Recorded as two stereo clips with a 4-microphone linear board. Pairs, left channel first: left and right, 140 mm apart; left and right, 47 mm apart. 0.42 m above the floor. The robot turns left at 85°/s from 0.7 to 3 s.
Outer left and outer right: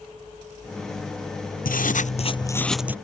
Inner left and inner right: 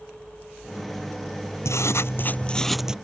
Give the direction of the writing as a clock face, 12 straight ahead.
9 o'clock.